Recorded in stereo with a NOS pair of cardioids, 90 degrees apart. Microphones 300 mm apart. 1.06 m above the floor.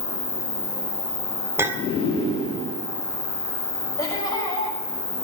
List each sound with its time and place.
0.0 s an insect: 20° left, 2.5 m
1.6 s a clink: 10° right, 1.6 m
4.0 s laughter: 10° left, 6.5 m